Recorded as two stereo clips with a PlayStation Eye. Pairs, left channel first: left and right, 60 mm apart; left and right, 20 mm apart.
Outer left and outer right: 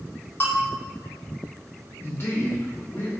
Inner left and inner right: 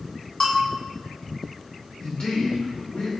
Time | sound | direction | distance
0.4 | a bell | 30° left (ahead or behind) | 1.2 m
2.0 | a man speaking | 40° left (ahead or behind) | 1.1 m